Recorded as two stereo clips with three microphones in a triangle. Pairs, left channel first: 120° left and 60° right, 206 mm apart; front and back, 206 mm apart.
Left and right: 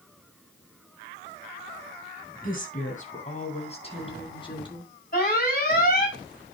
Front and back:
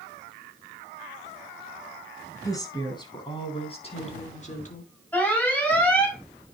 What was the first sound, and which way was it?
A woman speaking, 75° left.